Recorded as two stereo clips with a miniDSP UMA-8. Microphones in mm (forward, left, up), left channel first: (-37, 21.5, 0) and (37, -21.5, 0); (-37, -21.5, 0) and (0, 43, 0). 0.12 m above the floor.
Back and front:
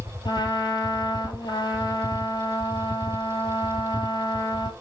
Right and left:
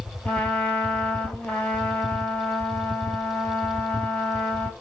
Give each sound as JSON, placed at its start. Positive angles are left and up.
{"t": 0.2, "sound": "a trumpet", "azimuth_deg": 170, "distance_m": 1.2}